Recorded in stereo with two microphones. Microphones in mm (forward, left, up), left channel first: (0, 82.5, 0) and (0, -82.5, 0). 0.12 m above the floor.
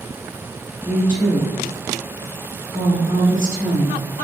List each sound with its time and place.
0.8 s a woman speaking: 15° left (ahead or behind), 1.1 m